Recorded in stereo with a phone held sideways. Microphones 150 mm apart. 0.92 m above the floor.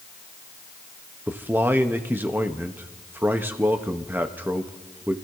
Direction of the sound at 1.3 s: 15° right (ahead or behind).